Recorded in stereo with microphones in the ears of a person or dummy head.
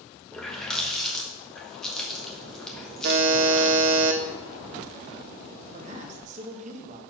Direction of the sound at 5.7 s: 40° right (ahead or behind).